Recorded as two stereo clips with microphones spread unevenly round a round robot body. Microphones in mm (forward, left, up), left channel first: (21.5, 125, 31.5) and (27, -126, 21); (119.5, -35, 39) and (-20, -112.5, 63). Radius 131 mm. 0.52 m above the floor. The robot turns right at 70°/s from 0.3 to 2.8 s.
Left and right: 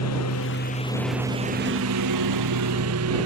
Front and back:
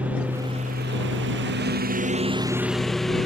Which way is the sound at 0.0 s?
125° left.